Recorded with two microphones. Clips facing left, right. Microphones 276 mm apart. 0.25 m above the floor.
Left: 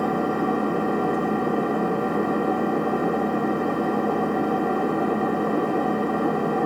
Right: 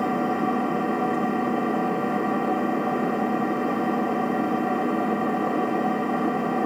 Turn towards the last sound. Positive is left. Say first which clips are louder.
# left 1 dB
turn(degrees=50)  # may be behind; listen again after turning